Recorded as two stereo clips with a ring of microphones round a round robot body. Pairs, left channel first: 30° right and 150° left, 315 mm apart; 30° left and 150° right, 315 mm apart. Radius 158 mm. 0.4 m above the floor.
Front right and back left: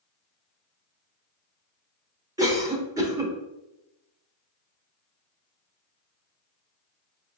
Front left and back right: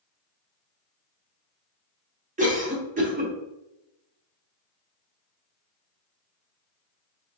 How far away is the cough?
About 0.9 m.